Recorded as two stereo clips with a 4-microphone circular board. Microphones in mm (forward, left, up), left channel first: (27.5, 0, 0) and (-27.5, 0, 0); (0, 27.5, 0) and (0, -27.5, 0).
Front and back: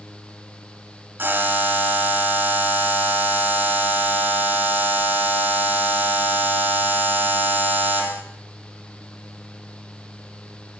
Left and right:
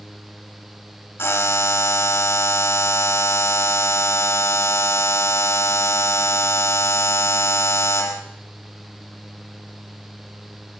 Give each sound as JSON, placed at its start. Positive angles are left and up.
{"t": 1.2, "sound": "a buzzer", "azimuth_deg": 130, "distance_m": 2.5}